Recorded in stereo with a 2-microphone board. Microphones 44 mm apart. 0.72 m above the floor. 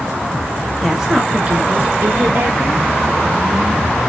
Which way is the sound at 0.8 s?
Centre (ahead or behind).